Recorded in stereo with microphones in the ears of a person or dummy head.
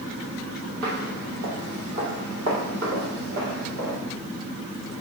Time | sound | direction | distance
0.8 | footsteps | 60° right (ahead or behind) | 3 m